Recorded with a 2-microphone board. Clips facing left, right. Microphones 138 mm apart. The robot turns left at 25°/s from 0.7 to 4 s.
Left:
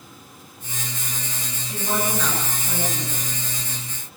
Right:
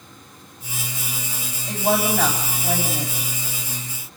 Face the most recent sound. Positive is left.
turn(degrees=-130)